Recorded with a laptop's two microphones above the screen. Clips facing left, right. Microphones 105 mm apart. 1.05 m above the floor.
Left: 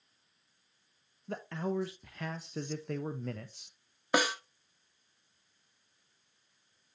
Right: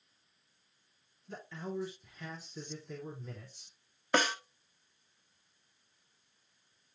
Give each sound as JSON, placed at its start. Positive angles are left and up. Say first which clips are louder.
{"t": 1.3, "sound": "a man speaking", "louder": "left 6 dB", "side_deg": 70, "distance_m": 0.7}
{"t": 4.1, "sound": "a snare drum", "louder": "left 1 dB", "side_deg": 10, "distance_m": 1.0}